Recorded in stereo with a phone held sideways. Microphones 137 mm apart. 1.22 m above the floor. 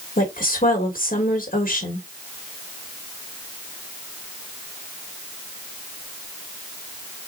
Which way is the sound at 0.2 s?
80° left.